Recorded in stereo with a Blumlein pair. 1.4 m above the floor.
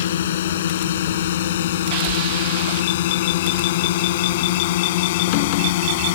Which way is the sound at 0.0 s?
60° left.